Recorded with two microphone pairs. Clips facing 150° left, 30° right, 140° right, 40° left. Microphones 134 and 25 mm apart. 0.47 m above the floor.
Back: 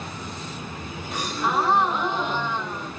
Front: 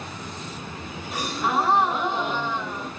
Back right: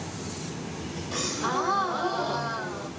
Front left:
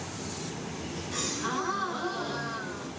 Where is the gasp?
115° right, 1.2 m.